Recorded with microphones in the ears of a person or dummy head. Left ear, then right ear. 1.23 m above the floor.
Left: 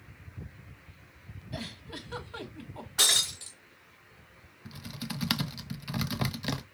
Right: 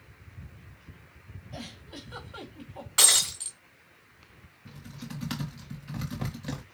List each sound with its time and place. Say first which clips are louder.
1.5 s a giggle: left 2 dB; 15° left (ahead or behind), 1.3 m
3.0 s breaking glass: right 2 dB; 35° right (ahead or behind), 1.2 m
4.7 s typing on a keyboard: left 5 dB; 35° left (ahead or behind), 0.5 m